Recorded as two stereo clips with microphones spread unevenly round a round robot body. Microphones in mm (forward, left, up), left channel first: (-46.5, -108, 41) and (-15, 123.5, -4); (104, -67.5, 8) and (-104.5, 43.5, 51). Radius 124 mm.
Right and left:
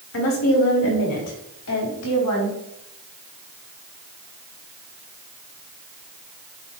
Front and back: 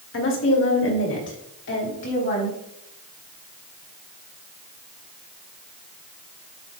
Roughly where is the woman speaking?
Ahead right.